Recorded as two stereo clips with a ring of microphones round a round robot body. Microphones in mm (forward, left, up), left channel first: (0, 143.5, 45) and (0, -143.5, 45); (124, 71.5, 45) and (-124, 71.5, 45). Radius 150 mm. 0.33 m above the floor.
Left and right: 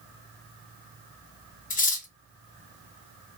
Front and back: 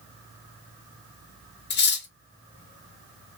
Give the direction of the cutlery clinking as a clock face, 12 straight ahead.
11 o'clock.